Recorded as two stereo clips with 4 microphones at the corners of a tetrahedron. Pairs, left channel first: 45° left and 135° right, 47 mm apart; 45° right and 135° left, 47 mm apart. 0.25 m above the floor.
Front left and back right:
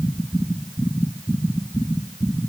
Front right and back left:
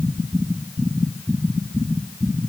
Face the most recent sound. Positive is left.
No sound to turn to.